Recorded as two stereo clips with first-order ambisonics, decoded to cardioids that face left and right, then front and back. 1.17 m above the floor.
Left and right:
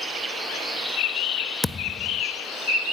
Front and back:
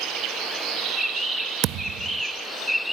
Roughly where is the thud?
Behind.